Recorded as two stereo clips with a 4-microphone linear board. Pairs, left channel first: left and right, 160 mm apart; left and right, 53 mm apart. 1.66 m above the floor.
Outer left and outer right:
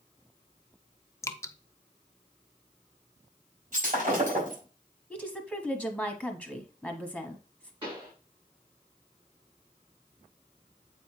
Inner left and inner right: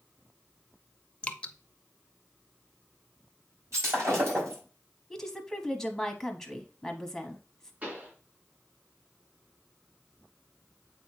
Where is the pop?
35° right (ahead or behind), 4.5 m.